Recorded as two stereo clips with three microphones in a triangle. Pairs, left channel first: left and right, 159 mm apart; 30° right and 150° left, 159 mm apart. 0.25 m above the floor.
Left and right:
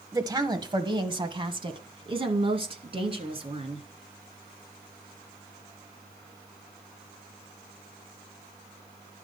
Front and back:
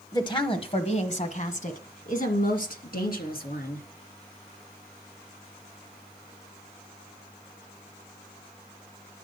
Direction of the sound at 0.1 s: 55° right.